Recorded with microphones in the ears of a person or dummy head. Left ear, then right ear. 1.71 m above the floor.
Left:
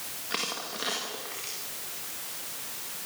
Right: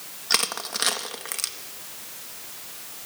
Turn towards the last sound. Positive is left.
turn(degrees=-70)  # may be behind; listen again after turning